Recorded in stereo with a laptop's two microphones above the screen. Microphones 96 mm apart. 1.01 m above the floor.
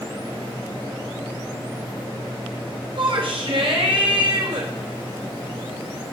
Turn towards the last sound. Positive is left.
turn(degrees=-65)  # may be behind; listen again after turning